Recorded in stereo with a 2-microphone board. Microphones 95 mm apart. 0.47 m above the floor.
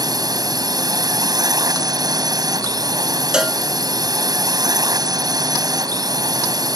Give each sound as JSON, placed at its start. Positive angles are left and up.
{"t": 0.0, "sound": "a drone", "side_deg": -45}
{"t": 3.3, "sound": "a cowbell", "side_deg": -10}